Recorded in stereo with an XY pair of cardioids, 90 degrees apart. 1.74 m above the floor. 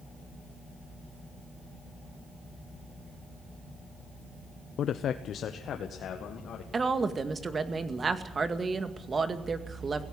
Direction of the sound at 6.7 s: 40° right.